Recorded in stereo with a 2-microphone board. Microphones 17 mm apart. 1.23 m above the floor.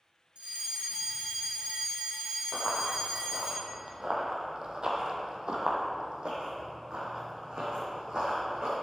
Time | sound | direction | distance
0.3 | a fire alarm | 70° right (ahead or behind) | 3.5 m
2.5 | running footsteps | 25° right (ahead or behind) | 1.7 m